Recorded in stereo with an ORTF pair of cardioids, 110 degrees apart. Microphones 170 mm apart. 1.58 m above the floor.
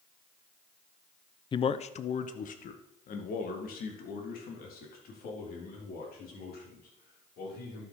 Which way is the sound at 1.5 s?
30° left.